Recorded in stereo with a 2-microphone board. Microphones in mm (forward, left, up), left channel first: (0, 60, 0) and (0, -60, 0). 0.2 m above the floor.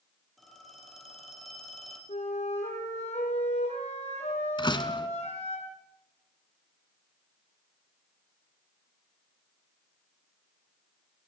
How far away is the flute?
About 6.5 m.